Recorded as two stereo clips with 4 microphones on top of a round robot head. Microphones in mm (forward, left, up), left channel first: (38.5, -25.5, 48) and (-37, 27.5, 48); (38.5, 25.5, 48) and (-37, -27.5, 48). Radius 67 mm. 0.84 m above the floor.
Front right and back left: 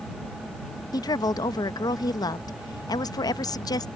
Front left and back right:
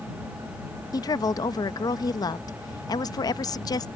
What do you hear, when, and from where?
0.9 s a woman speaking: straight ahead